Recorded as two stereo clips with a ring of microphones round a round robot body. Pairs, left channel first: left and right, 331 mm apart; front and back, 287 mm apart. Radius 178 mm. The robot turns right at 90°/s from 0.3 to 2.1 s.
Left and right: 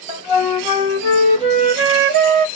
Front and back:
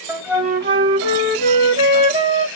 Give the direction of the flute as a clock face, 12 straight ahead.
9 o'clock.